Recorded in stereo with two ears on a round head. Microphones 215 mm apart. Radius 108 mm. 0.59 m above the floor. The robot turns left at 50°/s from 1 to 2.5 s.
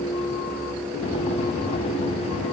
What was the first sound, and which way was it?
Only background noise.